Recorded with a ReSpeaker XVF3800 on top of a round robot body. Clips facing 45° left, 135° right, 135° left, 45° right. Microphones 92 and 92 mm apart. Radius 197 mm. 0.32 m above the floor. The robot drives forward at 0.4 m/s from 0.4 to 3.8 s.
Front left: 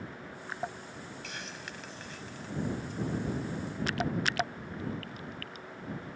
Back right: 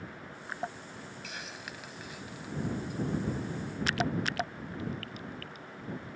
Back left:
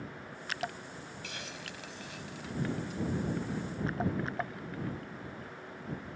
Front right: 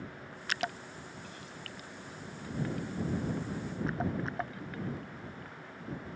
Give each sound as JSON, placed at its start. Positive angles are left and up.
{"t": 1.2, "sound": "a hiss", "azimuth_deg": 140}